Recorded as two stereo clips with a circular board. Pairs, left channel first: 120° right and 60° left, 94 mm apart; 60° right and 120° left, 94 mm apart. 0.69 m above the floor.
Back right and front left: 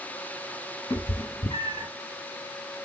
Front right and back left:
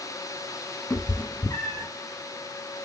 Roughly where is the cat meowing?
Behind right.